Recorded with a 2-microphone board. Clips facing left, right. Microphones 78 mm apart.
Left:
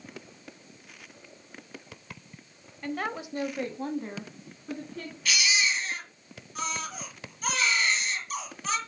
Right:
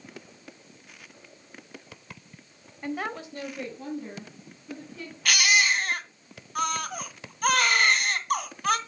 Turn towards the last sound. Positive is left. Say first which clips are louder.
# right 5 dB
turn(degrees=-60)  # may be behind; listen again after turning